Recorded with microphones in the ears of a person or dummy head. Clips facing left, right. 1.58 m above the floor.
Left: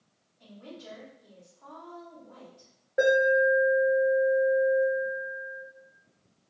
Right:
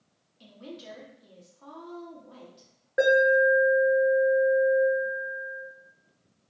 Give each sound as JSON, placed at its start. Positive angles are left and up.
{"t": 0.4, "sound": "a woman speaking", "side_deg": -50, "distance_m": 1.0}
{"t": 3.0, "sound": "an alarm", "side_deg": -20, "distance_m": 0.9}